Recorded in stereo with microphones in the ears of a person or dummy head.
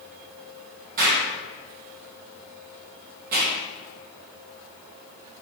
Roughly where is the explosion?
Right.